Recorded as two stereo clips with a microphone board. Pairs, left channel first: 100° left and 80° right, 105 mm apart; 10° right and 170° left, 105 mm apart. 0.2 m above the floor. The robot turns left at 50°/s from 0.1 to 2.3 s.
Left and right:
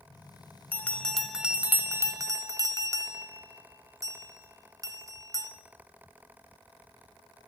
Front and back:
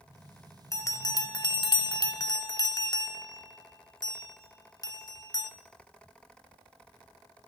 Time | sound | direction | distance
0.7 | a bell | 35° left | 0.9 m